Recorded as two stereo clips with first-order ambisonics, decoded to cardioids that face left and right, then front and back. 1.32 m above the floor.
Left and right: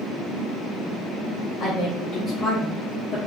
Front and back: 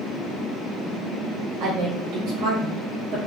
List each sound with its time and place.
1.6 s a woman speaking: 140° left, 1.1 m